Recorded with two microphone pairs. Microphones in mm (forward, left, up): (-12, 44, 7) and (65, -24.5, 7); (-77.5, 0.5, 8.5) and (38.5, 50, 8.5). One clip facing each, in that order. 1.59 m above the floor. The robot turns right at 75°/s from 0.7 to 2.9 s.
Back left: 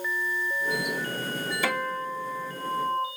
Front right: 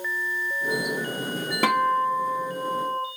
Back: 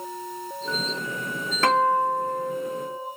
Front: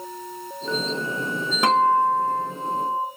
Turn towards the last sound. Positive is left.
turn(degrees=45)